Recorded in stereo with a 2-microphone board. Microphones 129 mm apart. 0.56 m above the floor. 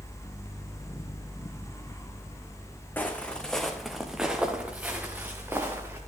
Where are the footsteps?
15° left (ahead or behind), 2.5 m; by 6.0 s 20° right (ahead or behind), 4 m.